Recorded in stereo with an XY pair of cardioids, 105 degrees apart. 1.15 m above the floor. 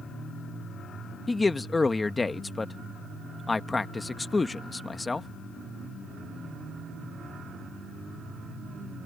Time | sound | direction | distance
1.3 | a man speaking | 25° left | ?